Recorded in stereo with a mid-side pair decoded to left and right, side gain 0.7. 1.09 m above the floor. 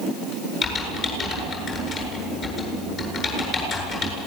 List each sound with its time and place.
0.6 s typing on a keyboard: 45° left, 8.5 m